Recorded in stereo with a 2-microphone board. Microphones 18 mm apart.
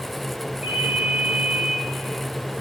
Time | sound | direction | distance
0.6 | a ringtone | 65° right (ahead or behind) | 9.5 m